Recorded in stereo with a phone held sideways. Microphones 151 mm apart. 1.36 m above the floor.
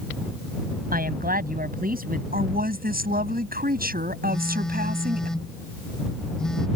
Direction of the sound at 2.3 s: 80° right.